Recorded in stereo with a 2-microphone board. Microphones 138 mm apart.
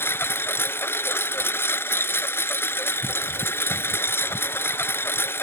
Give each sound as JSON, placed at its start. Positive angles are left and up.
{"t": 0.0, "sound": "a lawn mower", "side_deg": 15}